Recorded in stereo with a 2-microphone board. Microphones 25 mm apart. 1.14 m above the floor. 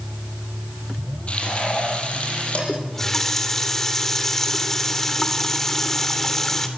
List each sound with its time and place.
1.3 s frying: 45° left (ahead or behind), 9.5 m
2.7 s a running tap: 15° left (ahead or behind), 2.5 m